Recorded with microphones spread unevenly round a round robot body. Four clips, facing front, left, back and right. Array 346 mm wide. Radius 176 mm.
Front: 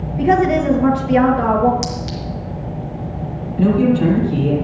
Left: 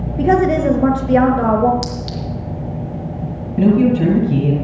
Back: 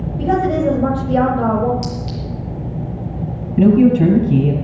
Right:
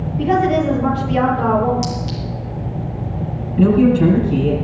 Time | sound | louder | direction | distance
0.2 | a woman speaking | left 2 dB, front 2 dB | 75° left | 6 m
1.8 | a clink | right 2 dB, front 1 dB | 65° left | 4.5 m
3.6 | a man speaking | even, back 3 dB | 160° left | 6.5 m